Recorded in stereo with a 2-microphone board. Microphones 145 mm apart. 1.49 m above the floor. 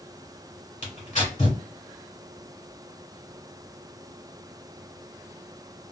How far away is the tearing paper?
About 2 m.